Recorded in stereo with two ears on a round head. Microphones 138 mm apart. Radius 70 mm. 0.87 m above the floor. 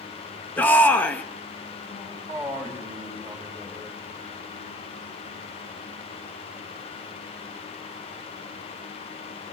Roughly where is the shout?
Centre.